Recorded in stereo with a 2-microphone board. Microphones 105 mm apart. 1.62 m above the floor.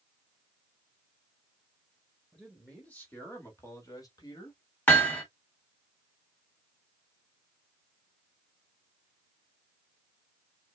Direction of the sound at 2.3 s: 5° left (ahead or behind).